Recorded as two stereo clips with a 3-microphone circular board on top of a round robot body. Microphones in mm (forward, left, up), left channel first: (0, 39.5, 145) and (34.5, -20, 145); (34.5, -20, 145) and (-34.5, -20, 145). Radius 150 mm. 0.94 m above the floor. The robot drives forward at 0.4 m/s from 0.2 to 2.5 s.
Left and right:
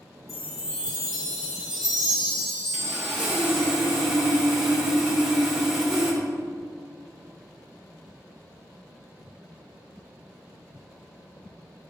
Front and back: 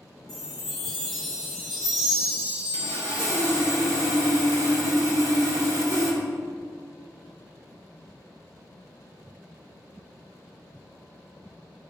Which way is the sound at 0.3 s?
80° left.